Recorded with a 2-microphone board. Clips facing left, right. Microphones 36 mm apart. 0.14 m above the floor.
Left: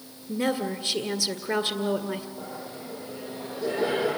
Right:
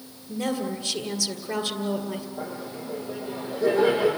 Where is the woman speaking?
30° left (ahead or behind), 1.9 m.